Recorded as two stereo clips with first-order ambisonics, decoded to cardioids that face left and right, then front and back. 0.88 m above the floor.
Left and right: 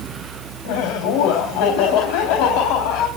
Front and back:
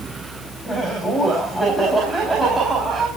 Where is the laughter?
80° left, 4.5 m; by 3.1 s 100° left, 5 m.